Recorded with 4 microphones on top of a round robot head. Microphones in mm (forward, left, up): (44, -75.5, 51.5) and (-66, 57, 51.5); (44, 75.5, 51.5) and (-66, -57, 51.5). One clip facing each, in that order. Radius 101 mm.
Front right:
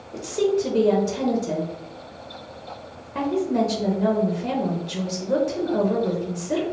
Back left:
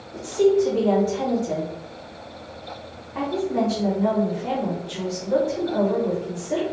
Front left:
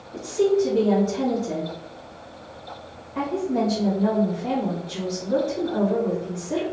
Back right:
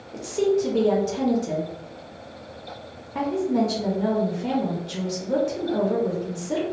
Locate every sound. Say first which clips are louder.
0.1 s a woman speaking: back left 4 dB, front left 2 dB; 95° right, 0.8 m